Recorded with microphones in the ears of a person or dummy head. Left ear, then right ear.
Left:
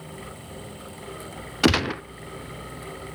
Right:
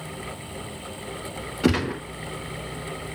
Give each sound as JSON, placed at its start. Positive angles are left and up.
{"t": 1.6, "sound": "a gunshot", "side_deg": 40, "distance_m": 0.5}